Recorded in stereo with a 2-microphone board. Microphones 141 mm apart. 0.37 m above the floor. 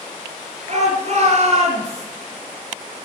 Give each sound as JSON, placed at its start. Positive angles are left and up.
{"t": 0.7, "sound": "a shout", "side_deg": -55, "distance_m": 7.5}